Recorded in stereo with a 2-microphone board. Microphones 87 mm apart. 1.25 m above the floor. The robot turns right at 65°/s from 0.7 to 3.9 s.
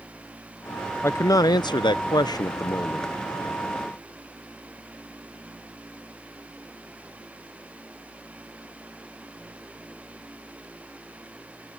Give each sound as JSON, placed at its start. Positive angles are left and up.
{"t": 1.0, "sound": "a man speaking", "azimuth_deg": 35}